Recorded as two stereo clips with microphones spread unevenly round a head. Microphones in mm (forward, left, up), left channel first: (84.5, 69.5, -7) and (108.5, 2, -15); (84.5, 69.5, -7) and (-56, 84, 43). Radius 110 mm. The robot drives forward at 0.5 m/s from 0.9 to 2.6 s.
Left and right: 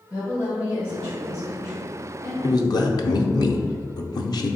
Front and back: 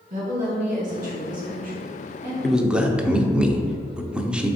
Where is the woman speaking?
175° right, 1.0 m.